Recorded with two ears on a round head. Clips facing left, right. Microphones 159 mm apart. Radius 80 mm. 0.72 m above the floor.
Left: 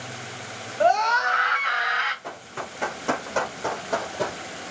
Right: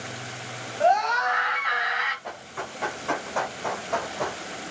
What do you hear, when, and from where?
0.8 s a scream: 55° left (ahead or behind), 3 m
2.2 s running footsteps: 60° left (ahead or behind), 3 m; by 4.4 s 35° left (ahead or behind), 1.5 m